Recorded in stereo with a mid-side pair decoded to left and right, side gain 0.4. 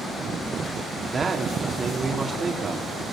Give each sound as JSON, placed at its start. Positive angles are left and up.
{"t": 1.0, "sound": "a man speaking", "azimuth_deg": -40, "distance_m": 3.0}